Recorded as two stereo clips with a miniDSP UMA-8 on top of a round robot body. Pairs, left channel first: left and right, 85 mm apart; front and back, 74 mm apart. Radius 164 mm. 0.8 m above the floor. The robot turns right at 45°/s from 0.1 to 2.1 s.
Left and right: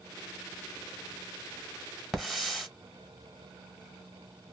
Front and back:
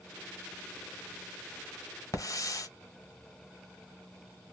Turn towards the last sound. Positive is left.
turn(degrees=0)